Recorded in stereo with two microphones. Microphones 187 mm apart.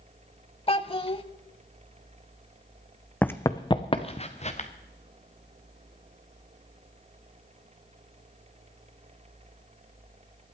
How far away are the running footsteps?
About 0.7 m.